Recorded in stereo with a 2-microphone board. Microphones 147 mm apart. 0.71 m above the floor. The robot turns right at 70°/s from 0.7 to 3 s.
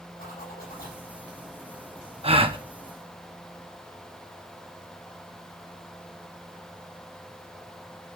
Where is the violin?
I don't hear a violin.